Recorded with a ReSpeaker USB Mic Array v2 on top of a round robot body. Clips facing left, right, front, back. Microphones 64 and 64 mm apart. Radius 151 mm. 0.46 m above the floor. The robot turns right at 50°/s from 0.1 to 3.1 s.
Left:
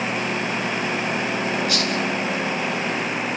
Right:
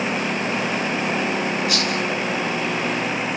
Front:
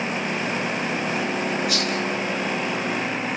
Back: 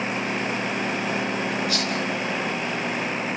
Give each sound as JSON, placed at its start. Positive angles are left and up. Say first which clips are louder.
{"t": 1.7, "sound": "a rattle", "louder": "right 1 dB, front 1 dB", "azimuth_deg": -25, "distance_m": 10.0}